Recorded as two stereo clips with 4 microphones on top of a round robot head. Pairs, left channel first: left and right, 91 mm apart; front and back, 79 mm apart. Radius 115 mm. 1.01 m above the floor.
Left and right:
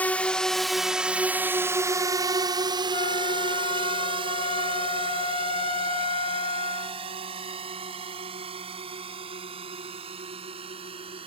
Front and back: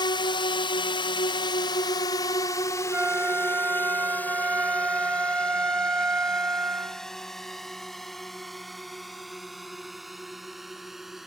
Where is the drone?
20° left; by 11.3 s 90° right.